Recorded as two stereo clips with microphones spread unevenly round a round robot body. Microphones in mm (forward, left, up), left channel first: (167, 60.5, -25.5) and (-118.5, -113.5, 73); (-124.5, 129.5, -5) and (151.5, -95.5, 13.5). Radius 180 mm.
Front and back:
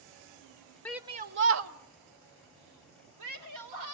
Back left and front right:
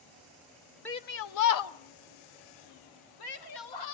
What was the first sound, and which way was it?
A shout, 65° left.